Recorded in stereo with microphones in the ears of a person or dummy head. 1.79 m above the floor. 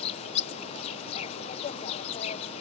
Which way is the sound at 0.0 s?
35° left (ahead or behind).